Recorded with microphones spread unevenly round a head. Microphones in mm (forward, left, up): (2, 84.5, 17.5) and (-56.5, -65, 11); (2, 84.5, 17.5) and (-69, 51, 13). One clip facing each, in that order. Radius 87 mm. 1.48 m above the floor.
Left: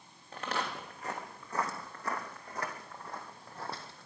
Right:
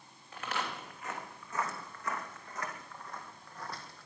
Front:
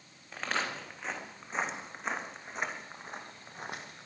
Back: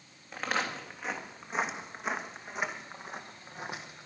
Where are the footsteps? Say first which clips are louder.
Left 2 dB, back 2 dB; 120° left, 4 m; by 4.1 s 115° left, 1.9 m.